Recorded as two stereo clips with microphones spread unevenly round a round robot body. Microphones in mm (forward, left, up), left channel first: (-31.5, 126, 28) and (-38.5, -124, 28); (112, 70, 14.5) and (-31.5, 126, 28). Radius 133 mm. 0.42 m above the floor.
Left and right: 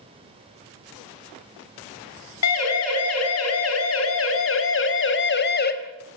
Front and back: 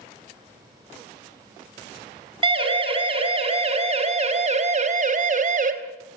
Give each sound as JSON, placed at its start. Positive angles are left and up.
{"t": 2.4, "sound": "a siren", "azimuth_deg": 105, "distance_m": 5.5}